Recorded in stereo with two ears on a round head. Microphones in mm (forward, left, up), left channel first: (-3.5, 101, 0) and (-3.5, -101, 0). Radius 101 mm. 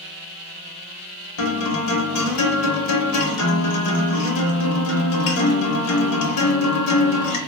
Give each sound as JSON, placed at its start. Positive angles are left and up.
{"t": 1.4, "sound": "a guitar", "side_deg": 85, "distance_m": 0.7}